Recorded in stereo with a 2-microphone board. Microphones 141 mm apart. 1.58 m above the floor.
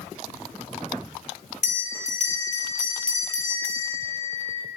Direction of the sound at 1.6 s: 55° left (ahead or behind).